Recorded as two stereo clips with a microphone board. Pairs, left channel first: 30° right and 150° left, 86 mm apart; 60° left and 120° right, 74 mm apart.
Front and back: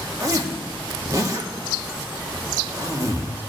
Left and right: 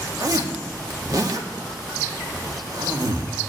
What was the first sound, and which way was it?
A zipper, 160° right.